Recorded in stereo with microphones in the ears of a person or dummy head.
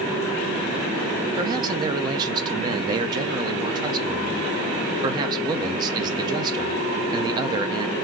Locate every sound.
1.4 s a man speaking: 25° right (ahead or behind), 0.6 m